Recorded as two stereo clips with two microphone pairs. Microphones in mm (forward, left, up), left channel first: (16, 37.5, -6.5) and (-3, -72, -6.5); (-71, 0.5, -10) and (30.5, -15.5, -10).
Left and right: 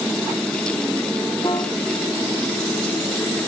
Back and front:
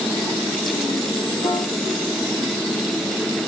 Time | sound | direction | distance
1.4 | a piano | 135° left | 6 m